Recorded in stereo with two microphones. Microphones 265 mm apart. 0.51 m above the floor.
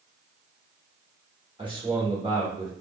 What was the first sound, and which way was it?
A man speaking, 20° right (ahead or behind).